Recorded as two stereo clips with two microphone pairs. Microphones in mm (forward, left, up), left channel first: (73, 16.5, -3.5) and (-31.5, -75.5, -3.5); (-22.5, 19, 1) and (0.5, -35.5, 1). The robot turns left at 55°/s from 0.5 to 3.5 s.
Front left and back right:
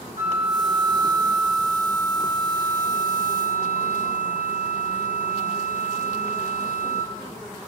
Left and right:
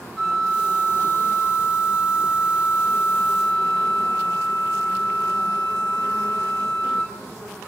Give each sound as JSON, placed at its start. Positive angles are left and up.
{"t": 0.2, "sound": "a flute", "azimuth_deg": -170, "distance_m": 1.8}